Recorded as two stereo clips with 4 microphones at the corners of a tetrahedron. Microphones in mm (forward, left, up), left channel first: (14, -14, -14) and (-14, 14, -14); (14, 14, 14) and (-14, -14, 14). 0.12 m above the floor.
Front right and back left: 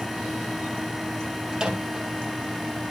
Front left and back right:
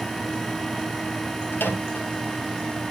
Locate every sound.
1.5 s a microwave: 65° left, 2.5 m